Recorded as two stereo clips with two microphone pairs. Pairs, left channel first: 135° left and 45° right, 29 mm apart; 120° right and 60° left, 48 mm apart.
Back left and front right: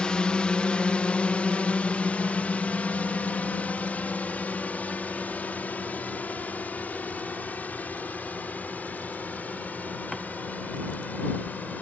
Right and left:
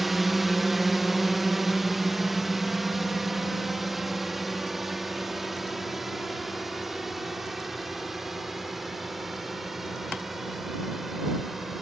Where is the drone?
145° left.